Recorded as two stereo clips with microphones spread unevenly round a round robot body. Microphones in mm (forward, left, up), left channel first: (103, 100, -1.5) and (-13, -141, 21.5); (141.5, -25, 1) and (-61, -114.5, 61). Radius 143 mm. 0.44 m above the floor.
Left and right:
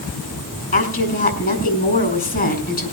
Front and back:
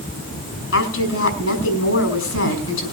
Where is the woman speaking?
5° left, 5.5 m.